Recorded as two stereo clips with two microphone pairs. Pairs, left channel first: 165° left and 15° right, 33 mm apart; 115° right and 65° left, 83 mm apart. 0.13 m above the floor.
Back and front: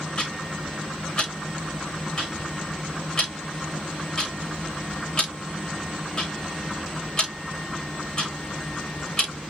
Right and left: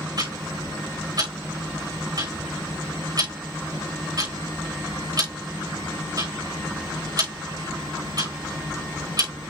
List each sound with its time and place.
0.2 s ticking: 100° left, 6.5 m